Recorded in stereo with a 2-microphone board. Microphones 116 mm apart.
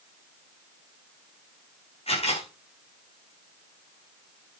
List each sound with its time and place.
2.1 s a camera shutter: 60° left (ahead or behind), 9 m